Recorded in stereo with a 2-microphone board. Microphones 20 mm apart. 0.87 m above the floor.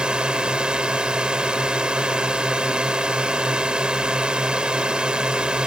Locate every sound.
0.0 s a drone: 55° right (ahead or behind)